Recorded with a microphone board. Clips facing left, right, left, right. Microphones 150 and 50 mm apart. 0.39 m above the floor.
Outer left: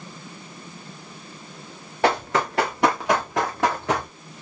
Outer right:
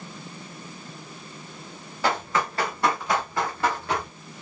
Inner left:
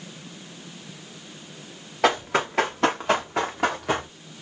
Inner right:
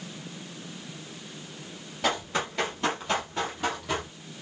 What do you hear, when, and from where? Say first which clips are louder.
2.0 s running footsteps: outer left 4 dB, inner left 7 dB; 75° left (ahead or behind), 3 m; by 4.1 s 80° left, 2 m